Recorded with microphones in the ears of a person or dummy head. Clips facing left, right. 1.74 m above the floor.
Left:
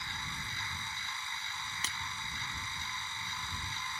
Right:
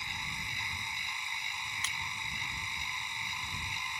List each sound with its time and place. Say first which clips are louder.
0.0 s a machine running: even; 15° right (ahead or behind)
1.8 s breaking glass: left 1 dB; 40° left (ahead or behind)